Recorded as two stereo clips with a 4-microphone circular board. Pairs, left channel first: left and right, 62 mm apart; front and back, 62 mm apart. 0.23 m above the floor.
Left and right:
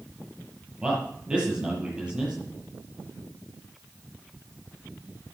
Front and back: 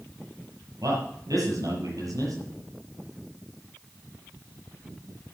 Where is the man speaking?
165° right, 7 m.